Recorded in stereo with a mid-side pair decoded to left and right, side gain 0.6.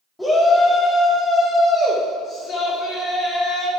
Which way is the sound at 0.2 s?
10° left.